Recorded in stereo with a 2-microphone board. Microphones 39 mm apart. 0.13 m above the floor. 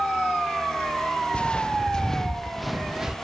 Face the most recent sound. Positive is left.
turn(degrees=-15)  # may be behind; listen again after turning